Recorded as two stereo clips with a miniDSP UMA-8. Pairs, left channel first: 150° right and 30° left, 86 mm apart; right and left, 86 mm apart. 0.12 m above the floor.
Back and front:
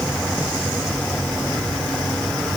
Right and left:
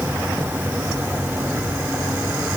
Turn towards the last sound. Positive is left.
No sound to turn to.